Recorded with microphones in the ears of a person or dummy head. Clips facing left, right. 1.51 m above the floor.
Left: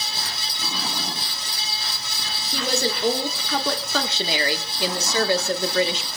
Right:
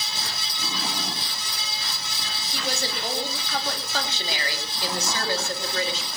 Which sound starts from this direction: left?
A woman speaking, at 2.5 s.